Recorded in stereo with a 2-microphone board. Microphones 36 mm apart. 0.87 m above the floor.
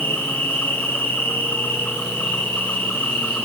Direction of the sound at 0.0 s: 75° left (ahead or behind).